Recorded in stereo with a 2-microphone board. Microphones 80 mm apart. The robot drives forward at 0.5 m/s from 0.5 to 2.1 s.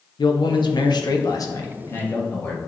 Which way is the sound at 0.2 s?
60° left (ahead or behind).